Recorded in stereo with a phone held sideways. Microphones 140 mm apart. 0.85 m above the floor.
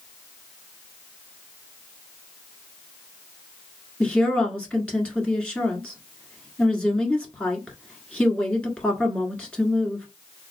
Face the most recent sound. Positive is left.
turn(degrees=10)  # may be behind; listen again after turning